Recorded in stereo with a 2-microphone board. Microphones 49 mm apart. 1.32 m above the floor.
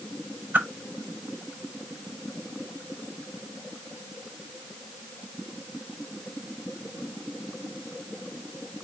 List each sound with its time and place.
0.5 s a whoosh: 45° right (ahead or behind), 0.8 m